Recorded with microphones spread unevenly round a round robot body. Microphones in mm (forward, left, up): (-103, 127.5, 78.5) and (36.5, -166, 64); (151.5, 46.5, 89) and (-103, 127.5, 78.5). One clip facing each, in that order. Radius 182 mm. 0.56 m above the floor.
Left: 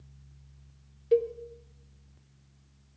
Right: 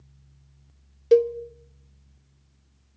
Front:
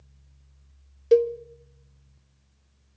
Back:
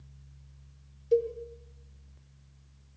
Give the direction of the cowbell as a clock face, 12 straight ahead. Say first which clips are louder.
Right 7 dB, front 7 dB; 1 o'clock.